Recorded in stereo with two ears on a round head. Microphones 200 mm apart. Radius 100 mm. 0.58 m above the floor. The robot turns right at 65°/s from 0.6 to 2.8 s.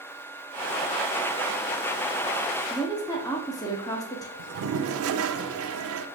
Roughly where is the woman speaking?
Centre.